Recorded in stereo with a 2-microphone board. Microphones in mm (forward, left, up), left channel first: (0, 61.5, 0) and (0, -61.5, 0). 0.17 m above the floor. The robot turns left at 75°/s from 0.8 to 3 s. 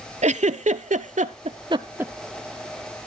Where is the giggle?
70° right (ahead or behind), 0.6 m; by 2.1 s 10° right (ahead or behind), 0.6 m.